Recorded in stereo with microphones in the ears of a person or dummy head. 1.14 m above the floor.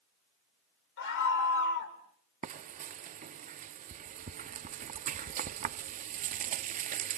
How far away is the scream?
About 4.5 m.